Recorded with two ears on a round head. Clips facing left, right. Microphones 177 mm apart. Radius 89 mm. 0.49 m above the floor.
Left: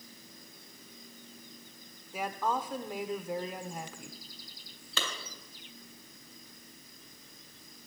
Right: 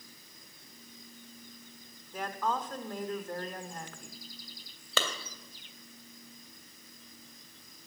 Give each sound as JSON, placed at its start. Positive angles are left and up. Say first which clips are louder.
{"t": 2.1, "sound": "a woman speaking", "louder": "left 1 dB", "side_deg": 10, "distance_m": 1.2}
{"t": 5.0, "sound": "a clap", "louder": "right 5 dB", "side_deg": -60, "distance_m": 2.5}